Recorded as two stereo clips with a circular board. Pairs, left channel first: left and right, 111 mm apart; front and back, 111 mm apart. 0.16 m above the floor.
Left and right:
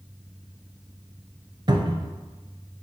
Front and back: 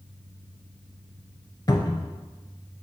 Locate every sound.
1.7 s a cupboard door: 50° right, 0.6 m